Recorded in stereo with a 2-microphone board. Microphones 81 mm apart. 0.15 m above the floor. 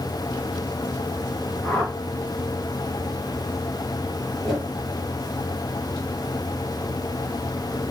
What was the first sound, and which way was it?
A whoosh, 10° left (ahead or behind).